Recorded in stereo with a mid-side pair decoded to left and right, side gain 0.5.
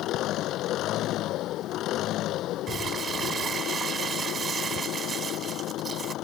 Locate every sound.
0.0 s an engine running: 70° left
2.7 s crumpling: 45° right